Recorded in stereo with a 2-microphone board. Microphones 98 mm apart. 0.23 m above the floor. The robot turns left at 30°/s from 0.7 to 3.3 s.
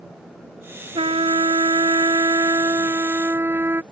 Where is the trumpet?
85° right; by 3.8 s 155° right.